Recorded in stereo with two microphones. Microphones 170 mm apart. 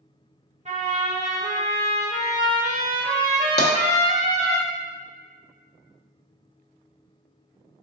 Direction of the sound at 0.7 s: 40° right (ahead or behind).